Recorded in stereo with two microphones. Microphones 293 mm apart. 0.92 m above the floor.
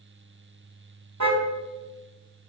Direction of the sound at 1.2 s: 75° right (ahead or behind).